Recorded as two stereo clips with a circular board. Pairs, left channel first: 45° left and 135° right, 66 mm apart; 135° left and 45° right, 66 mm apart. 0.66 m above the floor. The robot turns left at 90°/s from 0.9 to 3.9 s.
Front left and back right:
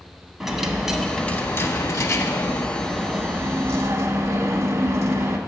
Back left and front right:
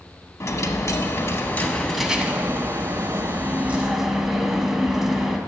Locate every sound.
0.4 s a dropped coin: 140° left, 0.7 m; by 5.4 s 130° right, 0.7 m